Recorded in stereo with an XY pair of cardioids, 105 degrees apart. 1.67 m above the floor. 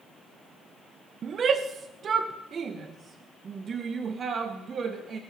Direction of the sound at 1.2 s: 50° right.